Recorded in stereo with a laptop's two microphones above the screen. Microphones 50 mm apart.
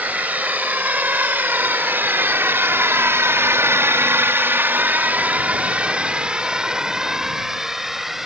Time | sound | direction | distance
0.0 | a drone | 30° right (ahead or behind) | ?